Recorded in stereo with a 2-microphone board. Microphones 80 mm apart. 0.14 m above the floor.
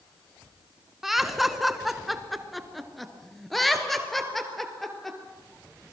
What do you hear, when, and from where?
1.0 s laughter: 5° right (ahead or behind), 1.3 m; by 5.2 s 5° left (ahead or behind), 3 m